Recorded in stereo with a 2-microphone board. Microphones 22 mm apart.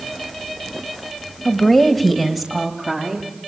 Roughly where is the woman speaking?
Centre.